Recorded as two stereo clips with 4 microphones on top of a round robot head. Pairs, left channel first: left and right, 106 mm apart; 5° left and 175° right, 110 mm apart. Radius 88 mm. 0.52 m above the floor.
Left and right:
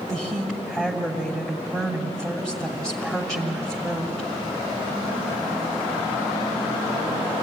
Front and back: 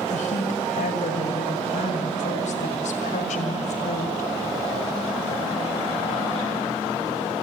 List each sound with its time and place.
0.1 s a woman speaking: 5° left, 3 m